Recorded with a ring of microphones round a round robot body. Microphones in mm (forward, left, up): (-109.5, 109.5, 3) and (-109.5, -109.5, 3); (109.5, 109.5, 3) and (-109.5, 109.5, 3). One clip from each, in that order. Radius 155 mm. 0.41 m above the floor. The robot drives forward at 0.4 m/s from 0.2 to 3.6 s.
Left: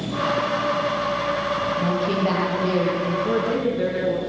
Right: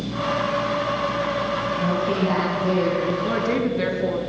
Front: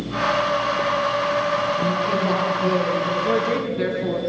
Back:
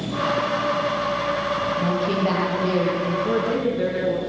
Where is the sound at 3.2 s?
50° right, 4 m; by 4.2 s 55° right, 4 m.